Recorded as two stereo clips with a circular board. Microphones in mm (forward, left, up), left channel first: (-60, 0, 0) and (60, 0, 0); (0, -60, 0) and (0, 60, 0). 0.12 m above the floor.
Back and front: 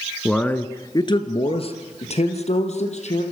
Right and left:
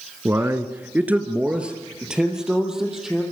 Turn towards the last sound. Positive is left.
turn(degrees=175)